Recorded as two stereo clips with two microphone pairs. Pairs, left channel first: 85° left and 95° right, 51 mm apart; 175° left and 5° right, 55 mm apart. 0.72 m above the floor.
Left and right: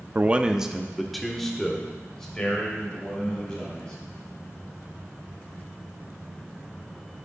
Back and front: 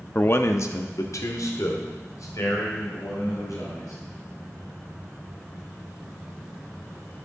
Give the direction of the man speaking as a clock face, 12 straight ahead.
5 o'clock.